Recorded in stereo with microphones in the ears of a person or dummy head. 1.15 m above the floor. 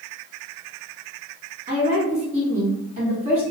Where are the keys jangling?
I don't hear keys jangling.